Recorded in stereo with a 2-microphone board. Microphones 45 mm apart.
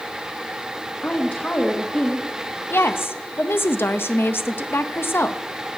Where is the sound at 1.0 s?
40° left (ahead or behind), 1.0 m.